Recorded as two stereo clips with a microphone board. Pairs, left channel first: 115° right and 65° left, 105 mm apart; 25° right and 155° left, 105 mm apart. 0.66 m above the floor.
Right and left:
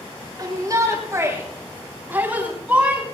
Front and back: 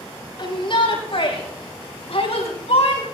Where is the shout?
15° left, 5 m; by 3.0 s 15° right, 6.5 m.